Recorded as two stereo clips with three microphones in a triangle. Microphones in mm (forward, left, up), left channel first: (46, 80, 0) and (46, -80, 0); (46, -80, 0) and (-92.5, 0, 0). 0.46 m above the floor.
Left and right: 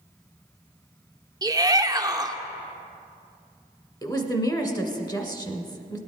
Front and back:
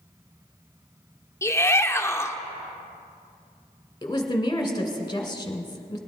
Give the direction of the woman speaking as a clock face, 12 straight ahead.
11 o'clock.